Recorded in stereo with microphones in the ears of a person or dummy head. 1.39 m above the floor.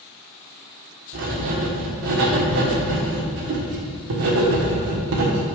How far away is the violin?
No violin in this recording.